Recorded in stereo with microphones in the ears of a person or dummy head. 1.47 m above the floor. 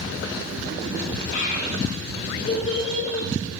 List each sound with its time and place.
1.3 s a child speaking: 50° left (ahead or behind), 8.5 m; by 3.3 s 40° left (ahead or behind), 9 m